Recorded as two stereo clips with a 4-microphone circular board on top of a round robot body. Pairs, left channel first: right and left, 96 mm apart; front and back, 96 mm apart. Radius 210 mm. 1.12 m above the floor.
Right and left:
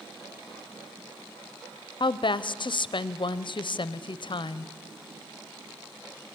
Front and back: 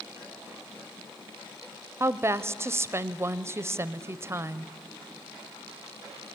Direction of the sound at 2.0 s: 120° right.